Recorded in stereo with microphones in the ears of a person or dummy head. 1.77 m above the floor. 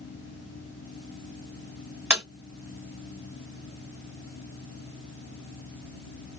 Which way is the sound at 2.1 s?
5° right (ahead or behind).